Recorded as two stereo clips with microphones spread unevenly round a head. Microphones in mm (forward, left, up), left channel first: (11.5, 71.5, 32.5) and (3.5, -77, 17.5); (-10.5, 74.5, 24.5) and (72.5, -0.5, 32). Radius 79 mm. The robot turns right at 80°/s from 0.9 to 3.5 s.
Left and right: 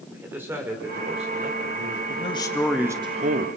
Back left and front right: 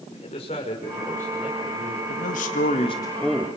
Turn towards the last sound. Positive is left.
turn(degrees=-120)